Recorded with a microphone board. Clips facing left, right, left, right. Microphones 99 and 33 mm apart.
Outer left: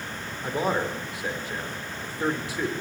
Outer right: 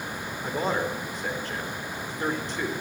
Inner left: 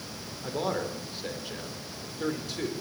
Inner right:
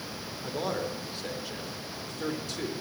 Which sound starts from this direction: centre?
A man speaking, at 0.4 s.